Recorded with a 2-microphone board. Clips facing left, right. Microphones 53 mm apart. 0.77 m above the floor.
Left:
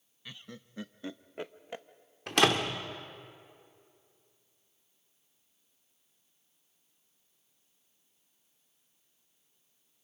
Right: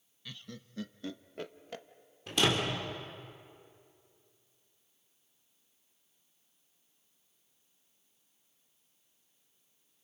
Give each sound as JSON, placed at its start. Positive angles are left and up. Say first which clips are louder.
{"t": 0.2, "sound": "laughter", "louder": "even", "side_deg": 20, "distance_m": 0.6}
{"t": 2.3, "sound": "a door slam", "louder": "left 3 dB", "side_deg": 75, "distance_m": 1.7}